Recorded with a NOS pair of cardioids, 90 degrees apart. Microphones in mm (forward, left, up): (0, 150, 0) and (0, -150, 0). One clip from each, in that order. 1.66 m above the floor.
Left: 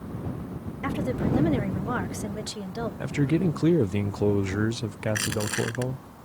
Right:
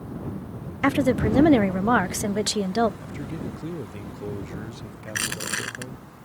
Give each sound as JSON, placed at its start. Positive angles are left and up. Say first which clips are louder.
{"t": 0.8, "sound": "a woman speaking", "louder": "right 8 dB", "azimuth_deg": -55}
{"t": 3.0, "sound": "a man speaking", "louder": "left 9 dB", "azimuth_deg": 50}
{"t": 5.1, "sound": "crushing", "louder": "even", "azimuth_deg": -20}